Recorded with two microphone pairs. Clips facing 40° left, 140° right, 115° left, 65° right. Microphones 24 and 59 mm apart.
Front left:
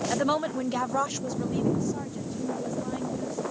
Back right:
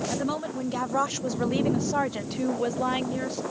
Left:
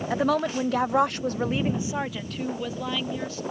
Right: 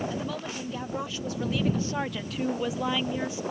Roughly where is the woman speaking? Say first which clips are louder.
Front left 3 dB, left 10 dB; left.